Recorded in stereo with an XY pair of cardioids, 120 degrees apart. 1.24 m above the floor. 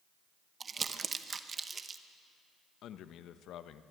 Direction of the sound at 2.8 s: 65° left.